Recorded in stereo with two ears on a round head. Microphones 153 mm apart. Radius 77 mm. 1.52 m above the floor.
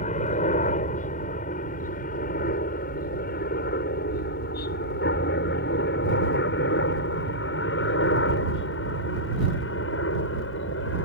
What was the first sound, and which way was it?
A helicopter, 45° left (ahead or behind).